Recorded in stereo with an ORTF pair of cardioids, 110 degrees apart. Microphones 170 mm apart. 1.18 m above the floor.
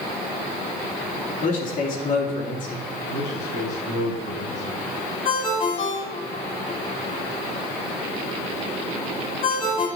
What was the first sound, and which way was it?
A man speaking, 50° left.